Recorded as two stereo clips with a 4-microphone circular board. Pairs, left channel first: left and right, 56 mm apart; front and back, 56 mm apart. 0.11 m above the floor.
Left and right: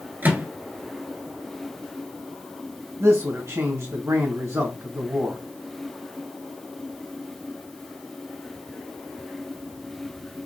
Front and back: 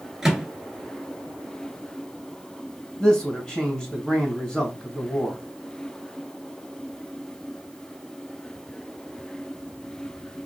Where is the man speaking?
75° right, 2.5 m.